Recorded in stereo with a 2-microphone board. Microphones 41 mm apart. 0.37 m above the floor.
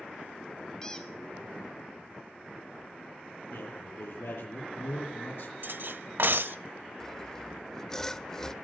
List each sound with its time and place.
0.8 s a squeak: 15° left (ahead or behind), 1.8 m
3.5 s a man speaking: 75° left (ahead or behind), 9 m
5.6 s cutlery clinking: 60° right (ahead or behind), 0.7 m
7.0 s sawing: 15° left (ahead or behind), 1.5 m